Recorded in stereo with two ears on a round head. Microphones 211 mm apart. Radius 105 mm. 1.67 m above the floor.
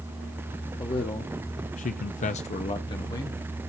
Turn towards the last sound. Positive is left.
turn(degrees=15)  # may be behind; listen again after turning